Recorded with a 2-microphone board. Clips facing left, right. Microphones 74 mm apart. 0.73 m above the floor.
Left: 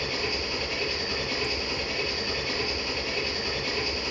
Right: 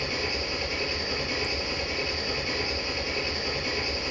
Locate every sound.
0.0 s an engine running: 15° right (ahead or behind), 7 m